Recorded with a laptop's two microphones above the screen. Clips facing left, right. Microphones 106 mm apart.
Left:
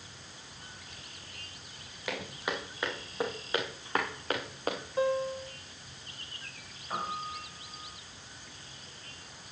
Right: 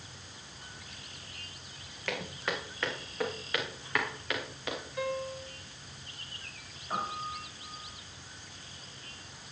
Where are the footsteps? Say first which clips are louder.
Even; 10° left (ahead or behind), 4.5 m; by 4.8 s 45° left (ahead or behind), 3 m.